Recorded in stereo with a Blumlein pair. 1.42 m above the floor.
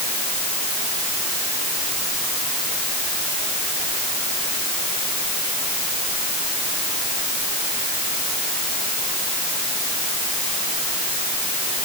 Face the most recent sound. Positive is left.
No sound to turn to.